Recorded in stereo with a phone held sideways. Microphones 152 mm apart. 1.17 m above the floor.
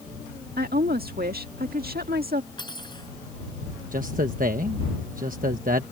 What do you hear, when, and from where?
0.6 s a woman speaking: 90° right
2.6 s cutlery clinking: 30° left (ahead or behind)
3.9 s a man speaking: 65° right (ahead or behind)